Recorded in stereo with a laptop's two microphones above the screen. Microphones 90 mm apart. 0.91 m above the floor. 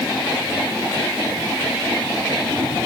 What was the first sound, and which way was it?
Only background noise.